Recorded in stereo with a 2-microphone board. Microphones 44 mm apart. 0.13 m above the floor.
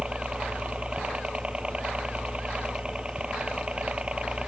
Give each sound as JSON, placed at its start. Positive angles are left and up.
{"t": 0.0, "sound": "a helicopter", "side_deg": -25}